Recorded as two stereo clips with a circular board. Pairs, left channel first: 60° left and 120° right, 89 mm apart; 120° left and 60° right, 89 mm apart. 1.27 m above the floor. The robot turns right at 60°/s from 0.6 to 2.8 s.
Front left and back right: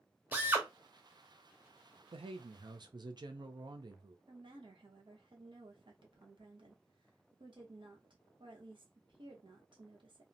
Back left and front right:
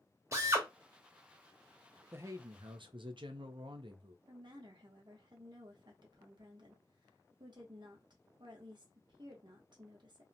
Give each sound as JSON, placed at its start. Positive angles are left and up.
{"t": 0.3, "sound": "a drill", "azimuth_deg": -70, "distance_m": 0.8}
{"t": 2.1, "sound": "a man speaking", "azimuth_deg": -125, "distance_m": 0.5}
{"t": 4.3, "sound": "a woman speaking", "azimuth_deg": -95, "distance_m": 0.9}